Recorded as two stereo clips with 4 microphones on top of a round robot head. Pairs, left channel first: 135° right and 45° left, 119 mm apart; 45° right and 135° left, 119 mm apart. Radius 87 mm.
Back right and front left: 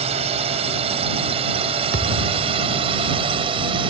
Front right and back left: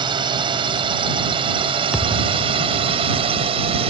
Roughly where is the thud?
Ahead left.